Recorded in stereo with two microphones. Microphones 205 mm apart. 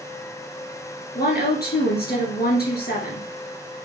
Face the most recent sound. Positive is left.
turn(degrees=50)  # may be behind; listen again after turning